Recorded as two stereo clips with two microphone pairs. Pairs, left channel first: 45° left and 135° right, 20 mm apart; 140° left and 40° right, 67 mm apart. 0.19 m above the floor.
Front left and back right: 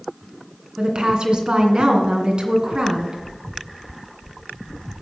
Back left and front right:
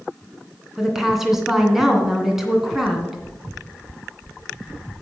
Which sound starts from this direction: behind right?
A woman speaking, at 0.8 s.